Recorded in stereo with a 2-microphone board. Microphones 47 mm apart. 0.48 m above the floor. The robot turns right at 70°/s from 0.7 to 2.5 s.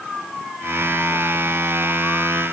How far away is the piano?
No piano in this recording.